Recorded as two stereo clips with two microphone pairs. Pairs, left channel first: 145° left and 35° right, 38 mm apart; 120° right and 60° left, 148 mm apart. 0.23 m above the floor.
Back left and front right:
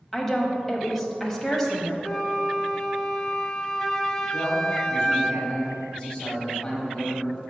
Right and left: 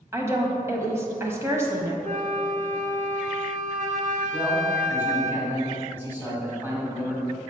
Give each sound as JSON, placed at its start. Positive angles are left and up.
{"t": 0.1, "sound": "a woman speaking", "azimuth_deg": 60, "distance_m": 1.0}
{"t": 2.0, "sound": "a flute", "azimuth_deg": 60, "distance_m": 0.6}
{"t": 4.3, "sound": "a man speaking", "azimuth_deg": 115, "distance_m": 1.6}